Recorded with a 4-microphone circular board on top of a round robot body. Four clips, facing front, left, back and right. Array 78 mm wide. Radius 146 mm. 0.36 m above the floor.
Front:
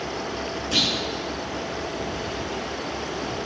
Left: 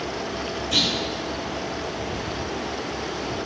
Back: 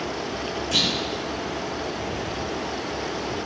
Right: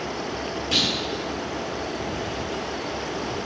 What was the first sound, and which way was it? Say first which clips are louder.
A clunk: even, front 1 dB; 105° right.